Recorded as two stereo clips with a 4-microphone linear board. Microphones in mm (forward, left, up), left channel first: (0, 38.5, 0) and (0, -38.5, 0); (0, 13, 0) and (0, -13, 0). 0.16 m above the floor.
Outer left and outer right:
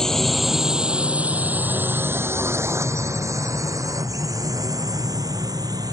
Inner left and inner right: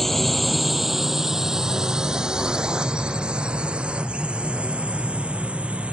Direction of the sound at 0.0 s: 5° left (ahead or behind).